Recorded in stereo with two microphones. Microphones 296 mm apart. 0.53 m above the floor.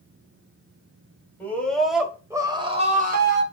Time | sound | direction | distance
1.4 | a scream | 5° left (ahead or behind) | 3 m